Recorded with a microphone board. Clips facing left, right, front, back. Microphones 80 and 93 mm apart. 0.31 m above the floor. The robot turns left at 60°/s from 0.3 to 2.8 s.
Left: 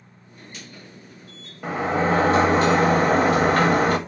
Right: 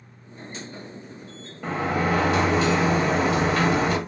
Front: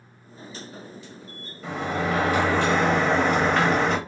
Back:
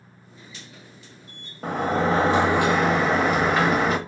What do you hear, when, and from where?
1.6 s a sliding door: 165° left, 0.6 m; by 4.0 s 95° left, 0.6 m